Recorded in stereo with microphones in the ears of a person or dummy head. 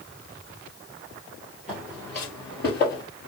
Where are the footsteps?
5° left (ahead or behind), 1.6 m; by 3.0 s 30° left (ahead or behind), 1.8 m.